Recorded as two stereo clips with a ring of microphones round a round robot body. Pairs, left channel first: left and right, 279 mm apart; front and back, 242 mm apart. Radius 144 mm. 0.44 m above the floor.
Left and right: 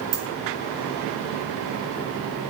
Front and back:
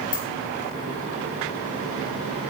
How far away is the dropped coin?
About 2 m.